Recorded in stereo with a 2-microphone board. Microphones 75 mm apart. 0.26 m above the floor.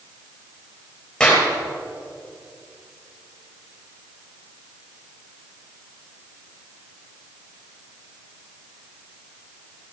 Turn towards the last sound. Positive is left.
turn(degrees=5)  # may be behind; listen again after turning